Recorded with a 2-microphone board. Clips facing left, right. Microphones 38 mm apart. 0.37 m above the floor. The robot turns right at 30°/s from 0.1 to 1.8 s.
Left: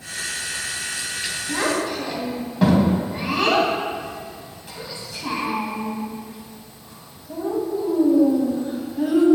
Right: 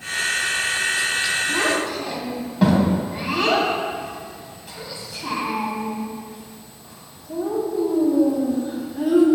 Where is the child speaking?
5° left (ahead or behind), 2.0 m; by 9.2 s centre (ahead or behind), 2.0 m.